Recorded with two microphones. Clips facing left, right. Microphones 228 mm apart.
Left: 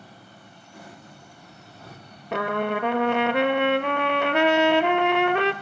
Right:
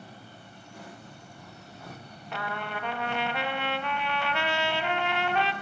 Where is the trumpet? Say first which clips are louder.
Left 11 dB; 65° left (ahead or behind), 0.7 m.